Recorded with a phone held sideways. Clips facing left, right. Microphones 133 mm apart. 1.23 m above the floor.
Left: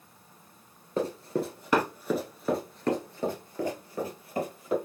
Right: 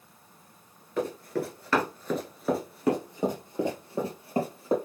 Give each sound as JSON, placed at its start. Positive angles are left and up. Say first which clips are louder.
{"t": 1.0, "sound": "running footsteps", "louder": "left 1 dB", "side_deg": 30, "distance_m": 1.3}